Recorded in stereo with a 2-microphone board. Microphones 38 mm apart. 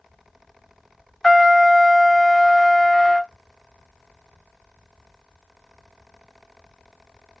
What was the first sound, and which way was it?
A trumpet, 15° left (ahead or behind).